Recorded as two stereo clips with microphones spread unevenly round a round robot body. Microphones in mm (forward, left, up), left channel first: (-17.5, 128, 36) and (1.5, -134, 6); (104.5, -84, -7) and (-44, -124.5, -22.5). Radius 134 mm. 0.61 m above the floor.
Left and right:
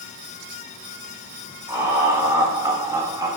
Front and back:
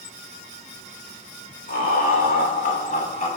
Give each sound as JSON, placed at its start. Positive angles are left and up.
{"t": 1.7, "sound": "laughter", "azimuth_deg": -5, "distance_m": 2.5}